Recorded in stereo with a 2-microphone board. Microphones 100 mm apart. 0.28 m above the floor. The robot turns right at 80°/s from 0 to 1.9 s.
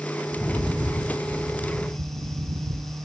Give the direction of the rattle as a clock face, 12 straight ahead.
7 o'clock.